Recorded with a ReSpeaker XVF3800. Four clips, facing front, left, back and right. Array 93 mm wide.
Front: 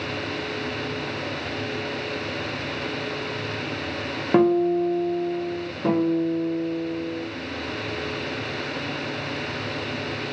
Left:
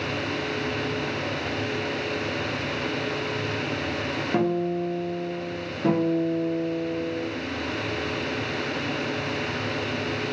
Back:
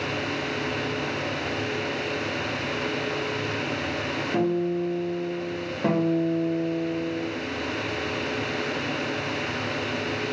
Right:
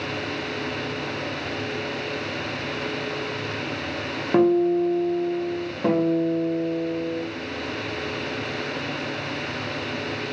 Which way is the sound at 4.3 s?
25° right.